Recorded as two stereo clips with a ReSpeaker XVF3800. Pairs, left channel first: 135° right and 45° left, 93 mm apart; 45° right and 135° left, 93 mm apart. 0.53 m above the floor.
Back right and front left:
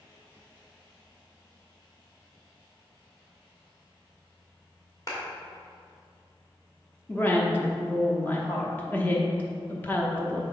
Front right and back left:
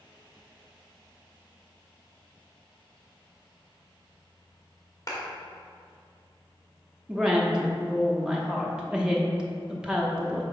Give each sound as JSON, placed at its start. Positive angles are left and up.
{"t": 5.1, "sound": "a clap", "azimuth_deg": -95, "distance_m": 1.6}
{"t": 7.1, "sound": "a woman speaking", "azimuth_deg": -165, "distance_m": 0.8}